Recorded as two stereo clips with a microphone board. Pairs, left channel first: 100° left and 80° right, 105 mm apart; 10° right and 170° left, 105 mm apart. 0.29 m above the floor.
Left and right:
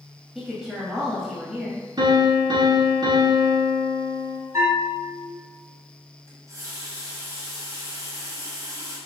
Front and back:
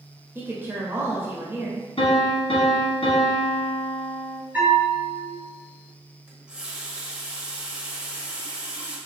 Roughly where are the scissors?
I don't hear scissors.